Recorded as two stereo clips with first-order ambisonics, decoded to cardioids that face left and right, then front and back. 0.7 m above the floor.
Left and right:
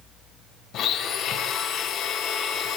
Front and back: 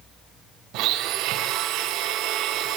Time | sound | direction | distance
0.7 | a blender | 140° left | 1.4 m